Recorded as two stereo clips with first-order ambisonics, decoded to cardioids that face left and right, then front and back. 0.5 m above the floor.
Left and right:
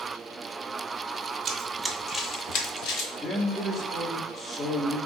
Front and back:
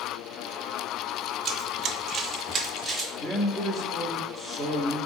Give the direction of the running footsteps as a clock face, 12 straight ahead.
5 o'clock.